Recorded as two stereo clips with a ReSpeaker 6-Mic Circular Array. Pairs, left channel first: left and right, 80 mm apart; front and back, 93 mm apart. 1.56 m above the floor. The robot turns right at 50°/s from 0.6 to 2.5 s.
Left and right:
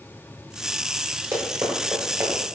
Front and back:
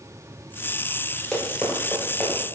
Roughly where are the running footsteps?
Right.